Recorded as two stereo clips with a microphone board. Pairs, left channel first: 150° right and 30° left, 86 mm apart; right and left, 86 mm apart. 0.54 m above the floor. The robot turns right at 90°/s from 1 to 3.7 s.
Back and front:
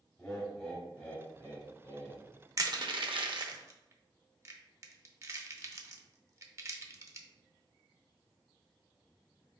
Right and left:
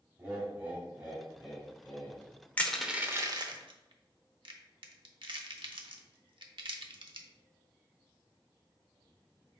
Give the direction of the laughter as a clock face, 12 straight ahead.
7 o'clock.